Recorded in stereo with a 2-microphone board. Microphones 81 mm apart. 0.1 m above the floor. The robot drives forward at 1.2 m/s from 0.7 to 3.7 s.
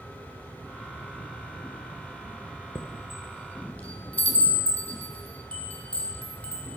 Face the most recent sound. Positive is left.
turn(degrees=20)  # may be behind; listen again after turning